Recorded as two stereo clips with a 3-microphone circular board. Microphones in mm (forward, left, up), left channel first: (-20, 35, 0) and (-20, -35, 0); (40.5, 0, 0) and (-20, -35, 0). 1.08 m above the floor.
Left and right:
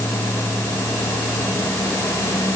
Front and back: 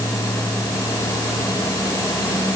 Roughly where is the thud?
No thud in this recording.